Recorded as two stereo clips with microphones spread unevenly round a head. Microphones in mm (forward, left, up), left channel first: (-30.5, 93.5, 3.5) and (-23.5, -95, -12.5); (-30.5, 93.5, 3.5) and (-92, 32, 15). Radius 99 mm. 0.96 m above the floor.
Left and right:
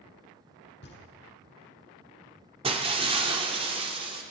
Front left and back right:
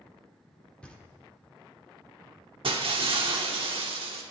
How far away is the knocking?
About 1.9 m.